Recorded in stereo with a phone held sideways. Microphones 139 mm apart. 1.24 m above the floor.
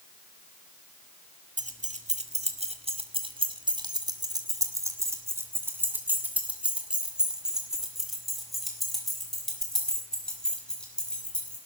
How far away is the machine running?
No machine running in this recording.